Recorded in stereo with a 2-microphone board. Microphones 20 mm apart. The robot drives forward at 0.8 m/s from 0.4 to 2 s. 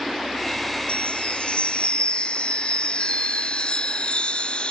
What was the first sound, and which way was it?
A chime, 65° left (ahead or behind).